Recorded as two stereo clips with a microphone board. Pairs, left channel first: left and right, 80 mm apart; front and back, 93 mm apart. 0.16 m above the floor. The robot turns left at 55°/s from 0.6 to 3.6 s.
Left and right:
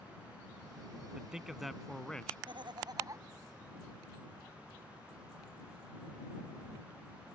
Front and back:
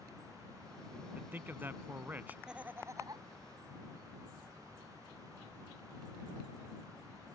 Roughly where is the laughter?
Right.